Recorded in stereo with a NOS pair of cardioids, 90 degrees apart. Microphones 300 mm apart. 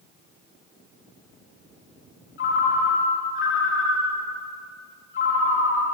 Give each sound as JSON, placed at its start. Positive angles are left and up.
{"t": 2.4, "sound": "a ringtone", "azimuth_deg": 40, "distance_m": 1.6}